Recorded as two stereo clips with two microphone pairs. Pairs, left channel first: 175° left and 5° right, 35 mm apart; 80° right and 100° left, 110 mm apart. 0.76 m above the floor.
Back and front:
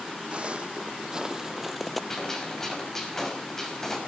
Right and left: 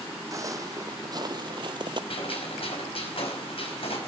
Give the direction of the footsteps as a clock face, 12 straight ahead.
11 o'clock.